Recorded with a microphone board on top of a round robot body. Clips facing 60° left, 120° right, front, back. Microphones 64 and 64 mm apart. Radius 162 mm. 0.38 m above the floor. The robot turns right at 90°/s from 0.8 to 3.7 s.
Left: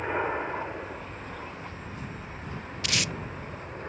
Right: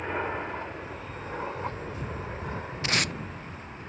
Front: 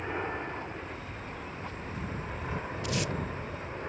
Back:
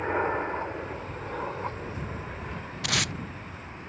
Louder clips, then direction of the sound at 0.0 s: Left 2 dB, back 7 dB; 140° left.